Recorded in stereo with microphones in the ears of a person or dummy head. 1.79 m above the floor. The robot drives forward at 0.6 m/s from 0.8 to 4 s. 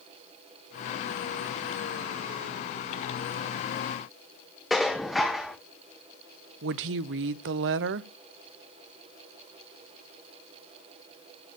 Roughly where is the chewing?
I don't hear chewing.